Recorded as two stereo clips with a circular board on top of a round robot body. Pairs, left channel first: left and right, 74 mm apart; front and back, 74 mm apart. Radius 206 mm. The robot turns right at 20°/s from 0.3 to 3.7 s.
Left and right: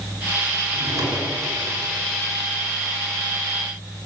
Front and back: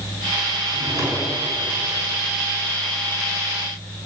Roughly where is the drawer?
Behind right.